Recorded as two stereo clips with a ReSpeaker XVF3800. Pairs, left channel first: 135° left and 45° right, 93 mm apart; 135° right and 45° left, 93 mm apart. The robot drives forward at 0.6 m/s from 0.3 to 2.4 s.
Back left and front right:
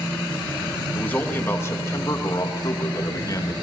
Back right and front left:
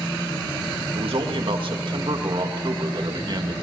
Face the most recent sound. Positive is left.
turn(degrees=85)